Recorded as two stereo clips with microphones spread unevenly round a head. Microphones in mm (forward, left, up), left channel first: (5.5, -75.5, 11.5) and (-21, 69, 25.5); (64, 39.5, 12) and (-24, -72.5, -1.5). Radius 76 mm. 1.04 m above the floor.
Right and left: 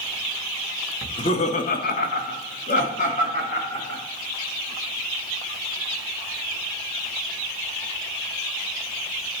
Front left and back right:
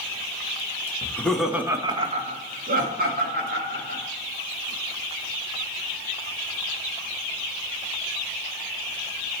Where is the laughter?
20° right, 1.6 m; by 4.0 s 130° right, 3.5 m.